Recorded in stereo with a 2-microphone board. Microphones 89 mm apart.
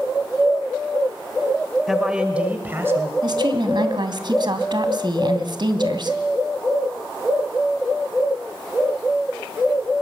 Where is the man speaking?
Centre (ahead or behind), 1.5 m; by 3.1 s 30° right (ahead or behind), 2 m.